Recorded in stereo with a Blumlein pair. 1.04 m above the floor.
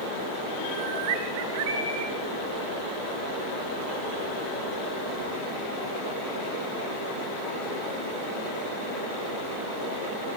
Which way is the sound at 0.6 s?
55° right.